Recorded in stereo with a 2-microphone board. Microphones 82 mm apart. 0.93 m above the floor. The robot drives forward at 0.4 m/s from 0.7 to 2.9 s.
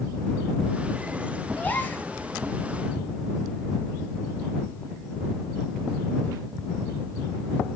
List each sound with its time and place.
1.6 s a gasp: 20° left (ahead or behind), 1.4 m